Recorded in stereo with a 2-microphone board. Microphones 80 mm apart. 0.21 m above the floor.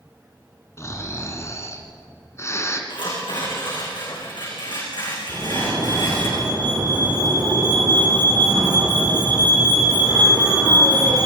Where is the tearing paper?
75° left (ahead or behind), 8.5 m.